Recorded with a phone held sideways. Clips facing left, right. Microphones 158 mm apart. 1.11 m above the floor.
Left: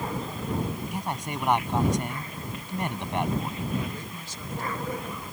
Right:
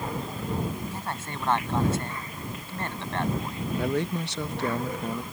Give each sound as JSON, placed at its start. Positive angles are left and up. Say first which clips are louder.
{"t": 0.9, "sound": "a man speaking", "louder": "left 3 dB", "side_deg": 15}
{"t": 3.8, "sound": "a man speaking", "louder": "right 8 dB", "side_deg": -75}